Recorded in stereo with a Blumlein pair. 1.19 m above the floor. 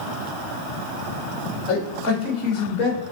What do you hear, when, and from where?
1.7 s a man speaking: 30° left, 2.5 m